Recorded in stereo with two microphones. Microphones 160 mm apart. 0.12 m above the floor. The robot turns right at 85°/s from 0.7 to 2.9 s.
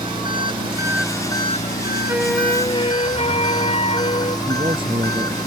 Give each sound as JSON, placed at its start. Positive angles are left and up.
{"t": 0.0, "sound": "an engine running", "azimuth_deg": -30}
{"t": 2.1, "sound": "a flute", "azimuth_deg": -20}
{"t": 4.5, "sound": "a man speaking", "side_deg": -35}